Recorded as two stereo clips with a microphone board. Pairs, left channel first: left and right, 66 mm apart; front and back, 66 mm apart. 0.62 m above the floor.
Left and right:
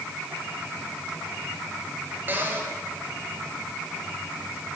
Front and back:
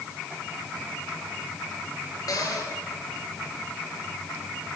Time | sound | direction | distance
2.3 | a cupboard door | 30° right | 6.5 m